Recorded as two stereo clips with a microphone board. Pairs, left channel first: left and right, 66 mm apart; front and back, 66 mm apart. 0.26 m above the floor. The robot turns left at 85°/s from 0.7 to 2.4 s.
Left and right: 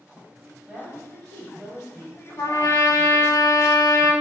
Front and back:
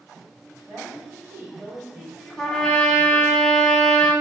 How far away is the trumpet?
About 0.6 m.